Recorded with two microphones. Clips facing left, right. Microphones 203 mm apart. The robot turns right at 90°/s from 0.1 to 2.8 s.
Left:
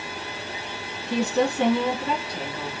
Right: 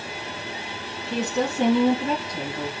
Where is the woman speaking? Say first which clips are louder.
Left 3 dB; 150° left, 1.3 m; by 2.7 s 60° right, 1.3 m.